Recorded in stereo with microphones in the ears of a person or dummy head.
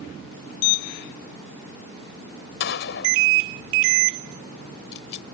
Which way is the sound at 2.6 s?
60° left (ahead or behind).